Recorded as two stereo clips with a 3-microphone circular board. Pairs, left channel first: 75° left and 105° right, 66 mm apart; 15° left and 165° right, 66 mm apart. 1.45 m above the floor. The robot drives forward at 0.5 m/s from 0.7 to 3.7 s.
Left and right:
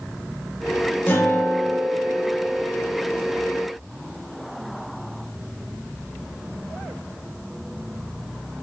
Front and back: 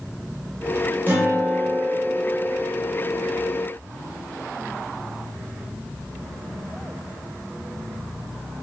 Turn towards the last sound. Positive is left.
turn(degrees=150)